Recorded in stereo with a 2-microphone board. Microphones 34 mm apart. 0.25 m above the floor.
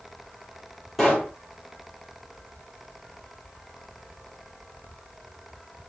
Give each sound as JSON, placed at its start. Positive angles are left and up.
{"t": 1.0, "sound": "a pop", "side_deg": 0, "distance_m": 5.0}